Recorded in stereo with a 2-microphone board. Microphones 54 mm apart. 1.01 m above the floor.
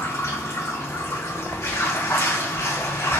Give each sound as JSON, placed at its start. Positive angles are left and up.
{"t": 0.0, "sound": "running water", "side_deg": 65, "distance_m": 2.0}